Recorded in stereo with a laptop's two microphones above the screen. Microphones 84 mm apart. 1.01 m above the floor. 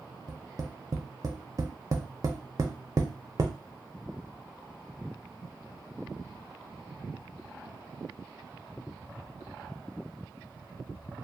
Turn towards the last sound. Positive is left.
turn(degrees=-45)  # may be behind; listen again after turning